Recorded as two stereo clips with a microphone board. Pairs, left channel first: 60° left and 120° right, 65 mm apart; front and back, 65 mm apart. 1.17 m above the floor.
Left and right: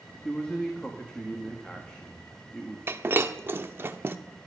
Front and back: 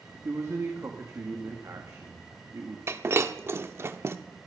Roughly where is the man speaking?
Behind left.